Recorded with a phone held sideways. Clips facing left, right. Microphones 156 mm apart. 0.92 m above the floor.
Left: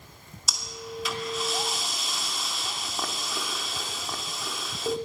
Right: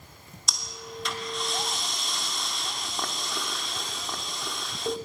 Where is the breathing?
5° left (ahead or behind), 2.5 m.